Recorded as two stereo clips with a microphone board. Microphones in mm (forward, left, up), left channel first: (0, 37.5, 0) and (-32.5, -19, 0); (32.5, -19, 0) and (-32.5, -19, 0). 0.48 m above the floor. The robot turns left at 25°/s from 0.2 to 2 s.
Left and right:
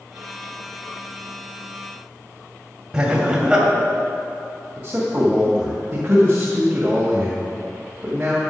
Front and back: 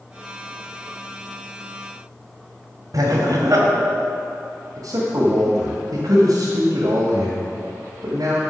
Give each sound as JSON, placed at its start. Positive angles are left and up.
{"t": 2.9, "sound": "laughter", "azimuth_deg": 165, "distance_m": 2.5}
{"t": 4.8, "sound": "a man speaking", "azimuth_deg": 165, "distance_m": 1.9}